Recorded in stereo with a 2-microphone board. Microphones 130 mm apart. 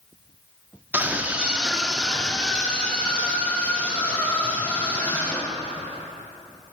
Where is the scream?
15° right (ahead or behind), 0.9 m; by 5.8 s 15° left (ahead or behind), 3.5 m.